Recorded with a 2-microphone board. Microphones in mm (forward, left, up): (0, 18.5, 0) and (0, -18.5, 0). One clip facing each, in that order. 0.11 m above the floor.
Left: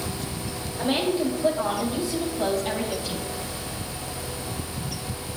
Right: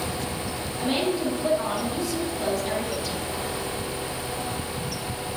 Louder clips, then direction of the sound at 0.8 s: Left 1 dB; 15° left (ahead or behind).